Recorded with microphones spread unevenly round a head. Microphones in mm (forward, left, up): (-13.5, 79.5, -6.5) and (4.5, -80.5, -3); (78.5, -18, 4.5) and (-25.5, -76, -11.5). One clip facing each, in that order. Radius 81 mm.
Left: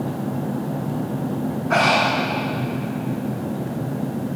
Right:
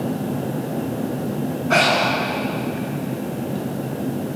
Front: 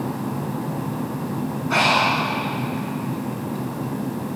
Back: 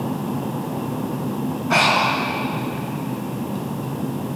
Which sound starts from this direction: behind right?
Breathing, at 1.7 s.